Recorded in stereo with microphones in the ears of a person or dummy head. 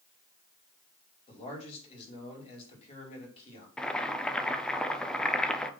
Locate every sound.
1.3 s a man speaking: 35° left (ahead or behind), 5.5 m
3.8 s boiling: 5° left (ahead or behind), 1.0 m